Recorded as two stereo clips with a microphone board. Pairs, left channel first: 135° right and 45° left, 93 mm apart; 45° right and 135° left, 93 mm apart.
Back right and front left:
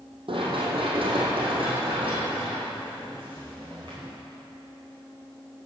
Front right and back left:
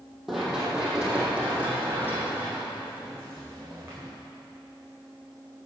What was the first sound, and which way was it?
Running footsteps, 50° left.